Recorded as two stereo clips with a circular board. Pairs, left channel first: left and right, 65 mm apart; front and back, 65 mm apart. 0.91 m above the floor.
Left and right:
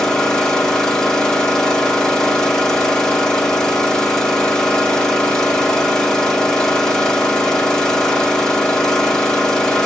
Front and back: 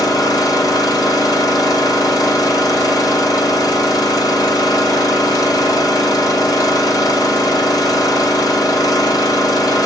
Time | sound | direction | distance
0.0 | an engine running | 10° left | 1.3 m